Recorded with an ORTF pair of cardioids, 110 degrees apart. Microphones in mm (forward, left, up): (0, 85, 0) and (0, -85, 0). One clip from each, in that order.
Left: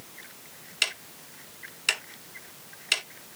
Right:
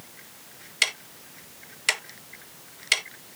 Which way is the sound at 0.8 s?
20° right.